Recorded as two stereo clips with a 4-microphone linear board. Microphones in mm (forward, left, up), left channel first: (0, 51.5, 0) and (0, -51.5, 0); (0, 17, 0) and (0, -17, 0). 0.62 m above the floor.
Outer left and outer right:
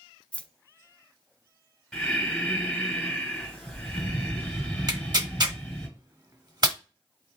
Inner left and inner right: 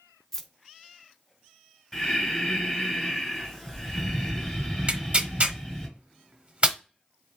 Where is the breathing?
5° left (ahead or behind), 3 m.